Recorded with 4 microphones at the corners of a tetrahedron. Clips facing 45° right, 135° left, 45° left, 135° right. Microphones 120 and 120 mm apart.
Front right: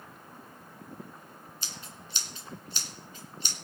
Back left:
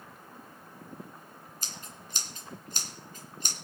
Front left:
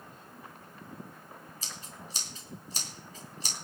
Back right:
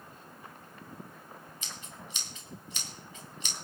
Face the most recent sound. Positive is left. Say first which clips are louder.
# back left 1 dB, even
turn(degrees=95)